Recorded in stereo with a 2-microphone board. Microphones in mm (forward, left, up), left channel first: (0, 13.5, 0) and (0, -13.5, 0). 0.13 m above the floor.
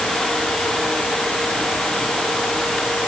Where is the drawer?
No drawer in this recording.